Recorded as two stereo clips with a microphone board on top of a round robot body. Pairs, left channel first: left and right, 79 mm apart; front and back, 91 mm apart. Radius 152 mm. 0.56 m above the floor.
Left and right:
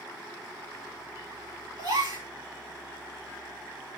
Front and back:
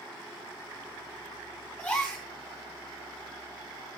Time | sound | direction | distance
1.8 | a gasp | 75° right | 2.5 m